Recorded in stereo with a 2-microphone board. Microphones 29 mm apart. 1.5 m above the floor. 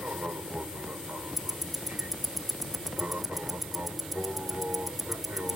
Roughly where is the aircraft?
Right.